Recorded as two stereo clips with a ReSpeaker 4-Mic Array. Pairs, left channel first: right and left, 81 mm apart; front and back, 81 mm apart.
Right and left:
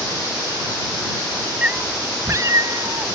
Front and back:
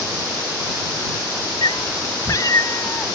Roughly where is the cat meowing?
Ahead.